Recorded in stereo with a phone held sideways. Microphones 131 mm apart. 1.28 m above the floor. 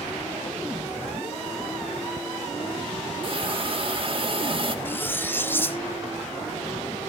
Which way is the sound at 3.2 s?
40° right (ahead or behind).